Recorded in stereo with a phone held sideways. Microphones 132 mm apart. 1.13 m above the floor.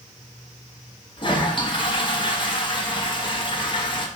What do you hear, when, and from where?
1.2 s a toilet flushing: 40° left (ahead or behind), 1.1 m